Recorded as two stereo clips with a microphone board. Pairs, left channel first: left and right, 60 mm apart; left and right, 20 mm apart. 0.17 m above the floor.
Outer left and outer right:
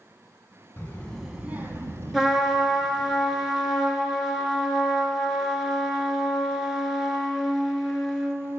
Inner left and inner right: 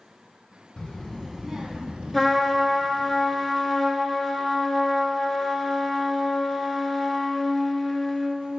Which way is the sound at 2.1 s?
5° right (ahead or behind).